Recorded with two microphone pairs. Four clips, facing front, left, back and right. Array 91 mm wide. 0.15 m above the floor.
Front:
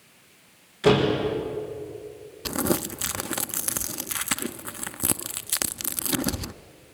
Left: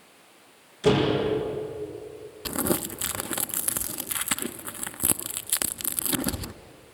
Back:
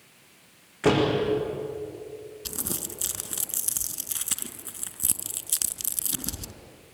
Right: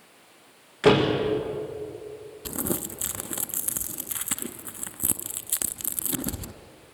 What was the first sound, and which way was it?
A door slam, 105° right.